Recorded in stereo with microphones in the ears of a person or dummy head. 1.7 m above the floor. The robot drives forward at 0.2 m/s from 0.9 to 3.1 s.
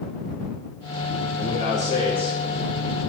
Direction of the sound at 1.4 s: 45° left (ahead or behind).